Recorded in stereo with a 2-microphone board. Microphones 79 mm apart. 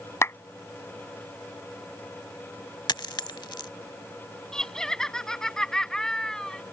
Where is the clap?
35° left (ahead or behind).